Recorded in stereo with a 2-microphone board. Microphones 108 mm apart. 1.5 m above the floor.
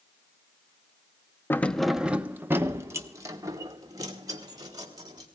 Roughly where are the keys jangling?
Left.